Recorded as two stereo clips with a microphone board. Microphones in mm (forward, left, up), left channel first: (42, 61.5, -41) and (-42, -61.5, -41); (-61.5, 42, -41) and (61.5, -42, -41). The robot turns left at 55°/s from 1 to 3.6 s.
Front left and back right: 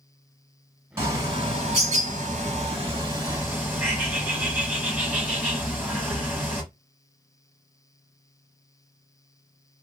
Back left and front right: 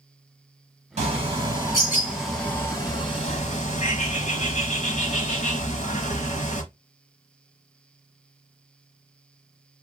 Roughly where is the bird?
Ahead right.